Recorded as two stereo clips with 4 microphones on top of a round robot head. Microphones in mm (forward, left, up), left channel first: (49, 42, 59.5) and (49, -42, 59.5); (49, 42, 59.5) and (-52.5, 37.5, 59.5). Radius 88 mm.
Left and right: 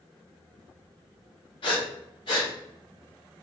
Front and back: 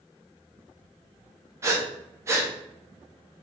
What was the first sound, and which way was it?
Breathing, 120° left.